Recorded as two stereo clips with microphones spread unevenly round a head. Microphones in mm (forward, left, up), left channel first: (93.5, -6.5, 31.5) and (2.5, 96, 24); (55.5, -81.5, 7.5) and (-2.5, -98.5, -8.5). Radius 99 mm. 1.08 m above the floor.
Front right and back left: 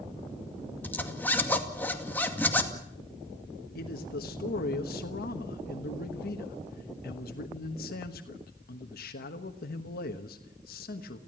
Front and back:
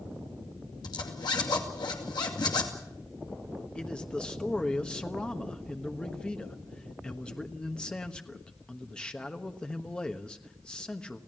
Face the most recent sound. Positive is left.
turn(degrees=-60)